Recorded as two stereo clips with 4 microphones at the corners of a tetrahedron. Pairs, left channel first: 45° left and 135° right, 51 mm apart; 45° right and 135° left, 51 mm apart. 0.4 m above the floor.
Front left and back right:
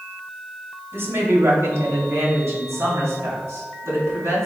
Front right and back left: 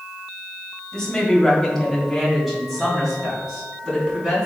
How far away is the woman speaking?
About 1.9 m.